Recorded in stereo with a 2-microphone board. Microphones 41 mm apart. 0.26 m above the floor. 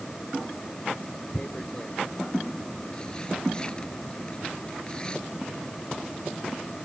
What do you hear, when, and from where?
1.3 s tearing paper: 20° left (ahead or behind)